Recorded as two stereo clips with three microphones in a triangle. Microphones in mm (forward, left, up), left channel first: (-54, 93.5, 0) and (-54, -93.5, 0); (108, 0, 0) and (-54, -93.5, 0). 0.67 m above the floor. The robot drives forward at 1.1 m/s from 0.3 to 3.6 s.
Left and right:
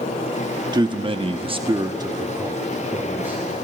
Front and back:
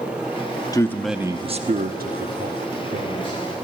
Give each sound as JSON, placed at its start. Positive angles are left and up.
{"t": 0.7, "sound": "a man speaking", "azimuth_deg": -35, "distance_m": 1.0}